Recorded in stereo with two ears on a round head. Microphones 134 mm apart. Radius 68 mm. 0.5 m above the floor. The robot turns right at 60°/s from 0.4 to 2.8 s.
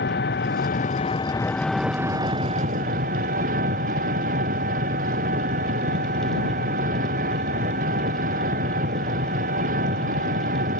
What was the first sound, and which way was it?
An engine running, 100° left.